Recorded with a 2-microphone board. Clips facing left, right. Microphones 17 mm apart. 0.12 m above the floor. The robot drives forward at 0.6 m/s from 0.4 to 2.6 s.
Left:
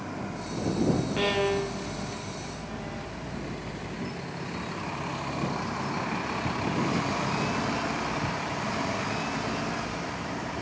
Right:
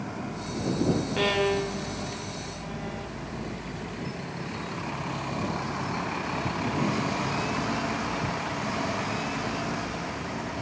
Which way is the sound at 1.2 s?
5° right (ahead or behind).